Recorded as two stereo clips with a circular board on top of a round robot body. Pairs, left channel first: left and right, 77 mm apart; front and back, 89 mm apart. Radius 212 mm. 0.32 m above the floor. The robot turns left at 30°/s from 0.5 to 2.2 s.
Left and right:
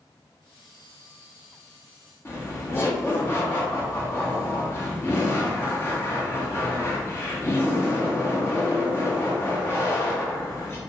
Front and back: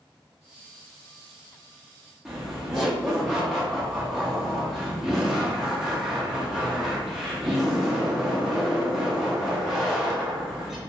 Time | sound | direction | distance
2.2 | laughter | 95° left | 1.1 m